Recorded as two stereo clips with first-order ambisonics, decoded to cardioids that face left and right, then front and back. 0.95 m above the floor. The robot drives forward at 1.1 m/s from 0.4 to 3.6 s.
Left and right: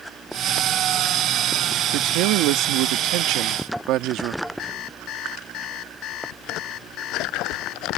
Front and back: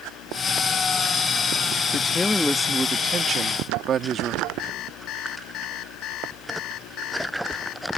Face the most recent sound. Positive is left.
turn(degrees=45)